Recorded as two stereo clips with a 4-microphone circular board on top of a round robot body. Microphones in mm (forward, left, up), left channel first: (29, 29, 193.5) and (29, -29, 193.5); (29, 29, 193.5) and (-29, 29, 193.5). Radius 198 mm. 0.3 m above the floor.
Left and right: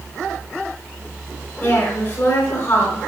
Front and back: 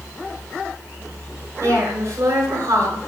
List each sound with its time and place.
1.6 s a woman speaking: 145° left, 5.5 m